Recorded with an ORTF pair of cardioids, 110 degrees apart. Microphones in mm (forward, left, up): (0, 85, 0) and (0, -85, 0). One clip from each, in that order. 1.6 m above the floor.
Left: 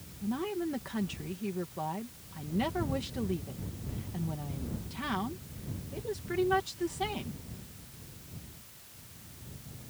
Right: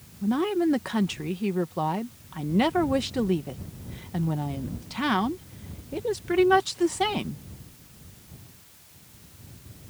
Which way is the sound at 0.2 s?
55° right.